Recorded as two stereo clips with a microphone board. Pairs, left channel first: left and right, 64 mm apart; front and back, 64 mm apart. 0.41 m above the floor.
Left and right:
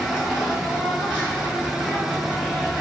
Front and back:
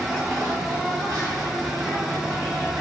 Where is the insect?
155° left, 1.4 m.